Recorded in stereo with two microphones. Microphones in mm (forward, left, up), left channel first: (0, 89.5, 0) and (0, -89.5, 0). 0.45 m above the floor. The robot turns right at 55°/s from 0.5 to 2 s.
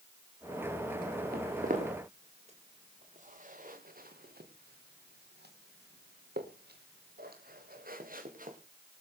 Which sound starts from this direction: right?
Footsteps, at 1.3 s.